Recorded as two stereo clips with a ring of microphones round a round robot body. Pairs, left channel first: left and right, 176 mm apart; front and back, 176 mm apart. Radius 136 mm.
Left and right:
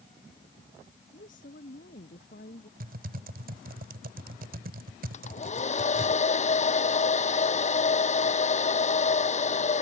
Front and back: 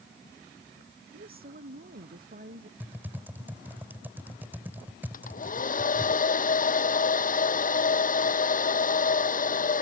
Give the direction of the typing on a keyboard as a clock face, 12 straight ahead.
3 o'clock.